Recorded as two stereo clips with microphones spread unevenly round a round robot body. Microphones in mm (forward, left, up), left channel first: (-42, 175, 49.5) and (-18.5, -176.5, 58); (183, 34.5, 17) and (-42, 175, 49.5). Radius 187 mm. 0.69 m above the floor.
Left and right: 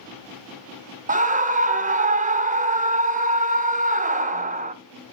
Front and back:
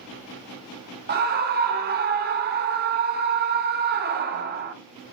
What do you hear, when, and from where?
1.1 s a scream: 155° right, 0.9 m